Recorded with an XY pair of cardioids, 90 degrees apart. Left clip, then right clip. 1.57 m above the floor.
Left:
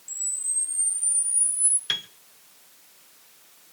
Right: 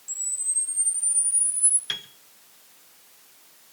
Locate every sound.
0.1 s a camera shutter: 10° left, 4.5 m
1.9 s a piano: 25° left, 1.3 m